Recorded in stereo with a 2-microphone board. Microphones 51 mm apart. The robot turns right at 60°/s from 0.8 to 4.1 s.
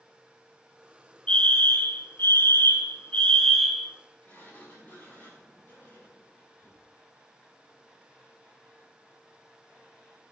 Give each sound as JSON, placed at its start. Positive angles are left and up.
{"t": 1.3, "sound": "a fire alarm", "azimuth_deg": 30, "distance_m": 2.0}
{"t": 4.2, "sound": "a sliding door", "side_deg": 35, "distance_m": 5.0}